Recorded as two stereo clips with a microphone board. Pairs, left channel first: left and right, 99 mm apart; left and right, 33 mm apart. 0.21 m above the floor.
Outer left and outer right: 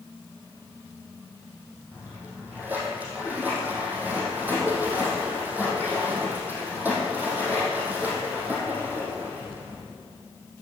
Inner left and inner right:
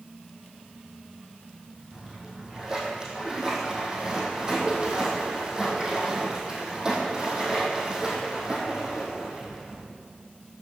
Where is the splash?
20° right (ahead or behind), 3 m.